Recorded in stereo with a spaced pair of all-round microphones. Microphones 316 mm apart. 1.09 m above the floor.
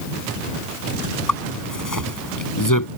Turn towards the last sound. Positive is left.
turn(degrees=85)